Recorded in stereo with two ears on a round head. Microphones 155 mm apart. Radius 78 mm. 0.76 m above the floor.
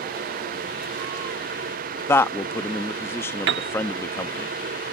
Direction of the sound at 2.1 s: 15° left (ahead or behind).